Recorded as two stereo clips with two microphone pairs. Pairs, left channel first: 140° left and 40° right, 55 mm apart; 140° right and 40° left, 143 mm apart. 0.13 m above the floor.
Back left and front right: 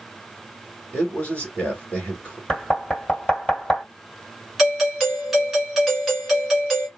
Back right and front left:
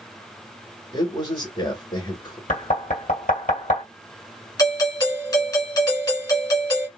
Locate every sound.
0.9 s a man speaking: 170° right, 2 m
2.5 s knocking: 145° right, 2 m
4.6 s a doorbell: 125° right, 1.6 m